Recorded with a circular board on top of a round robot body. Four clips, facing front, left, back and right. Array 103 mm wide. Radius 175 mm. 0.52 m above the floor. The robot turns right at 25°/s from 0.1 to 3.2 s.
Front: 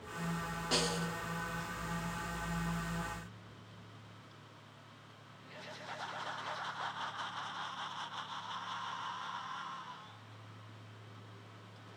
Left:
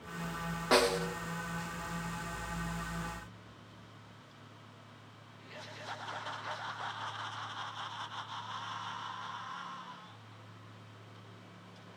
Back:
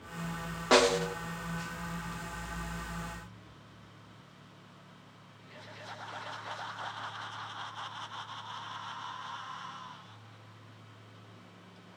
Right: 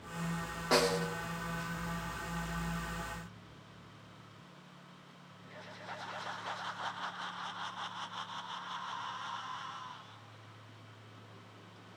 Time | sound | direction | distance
0.7 | a snare drum | 170° left | 0.9 m